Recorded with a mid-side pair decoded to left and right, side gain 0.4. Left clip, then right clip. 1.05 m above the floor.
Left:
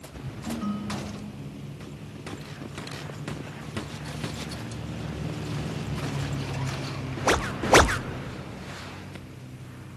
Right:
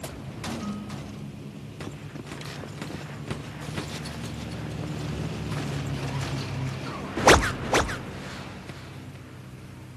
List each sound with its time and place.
0.5 s a ringtone: 30° left